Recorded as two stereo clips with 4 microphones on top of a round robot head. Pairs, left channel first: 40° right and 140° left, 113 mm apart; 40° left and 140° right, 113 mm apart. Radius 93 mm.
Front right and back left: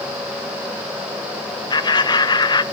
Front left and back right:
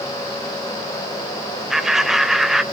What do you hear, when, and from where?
1.7 s laughter: 55° right, 1.3 m